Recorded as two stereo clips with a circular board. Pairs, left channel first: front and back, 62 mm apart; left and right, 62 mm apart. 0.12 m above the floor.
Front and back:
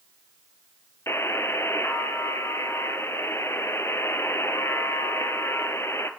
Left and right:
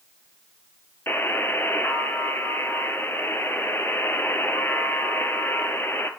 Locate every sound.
1.1 s a buzzer: 40° left, 0.6 m